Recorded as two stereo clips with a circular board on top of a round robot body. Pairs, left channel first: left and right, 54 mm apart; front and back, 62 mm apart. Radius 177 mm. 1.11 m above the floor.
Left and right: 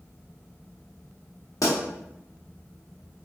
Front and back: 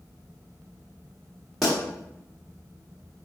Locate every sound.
1.6 s a pop: 85° left, 0.8 m